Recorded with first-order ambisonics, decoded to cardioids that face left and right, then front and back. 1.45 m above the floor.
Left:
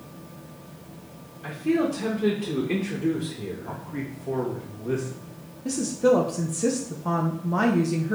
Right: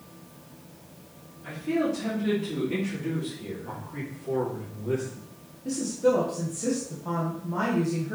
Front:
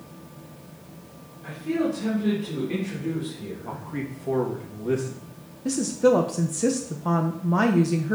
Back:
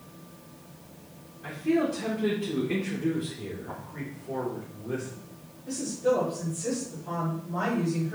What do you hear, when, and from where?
1.4 s a man speaking: 110° left, 2.0 m
3.6 s a man speaking: 15° left, 2.5 m
5.7 s a woman speaking: 25° left, 0.9 m